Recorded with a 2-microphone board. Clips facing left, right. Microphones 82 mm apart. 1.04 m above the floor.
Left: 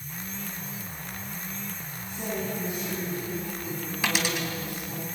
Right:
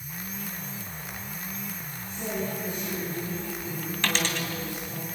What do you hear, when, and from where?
2.0 s a woman speaking: 20° left (ahead or behind), 9 m
4.0 s a dropped coin: 10° left (ahead or behind), 3 m